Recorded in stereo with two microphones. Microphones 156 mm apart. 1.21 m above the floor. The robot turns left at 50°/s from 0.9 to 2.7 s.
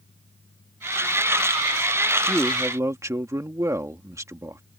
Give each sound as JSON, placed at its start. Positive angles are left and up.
{"t": 2.3, "sound": "a man speaking", "side_deg": 0}